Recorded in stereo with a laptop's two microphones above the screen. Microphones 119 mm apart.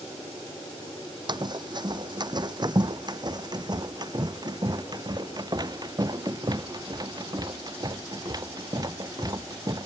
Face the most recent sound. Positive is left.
turn(degrees=-35)  # may be behind; listen again after turning